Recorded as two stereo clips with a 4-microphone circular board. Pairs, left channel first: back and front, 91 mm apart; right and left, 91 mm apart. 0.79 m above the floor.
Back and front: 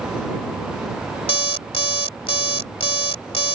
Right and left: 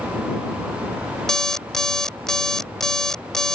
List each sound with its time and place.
1.3 s an alarm clock: 175° right